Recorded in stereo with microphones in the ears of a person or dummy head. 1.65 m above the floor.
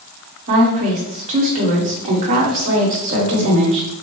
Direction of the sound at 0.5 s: 40° right (ahead or behind).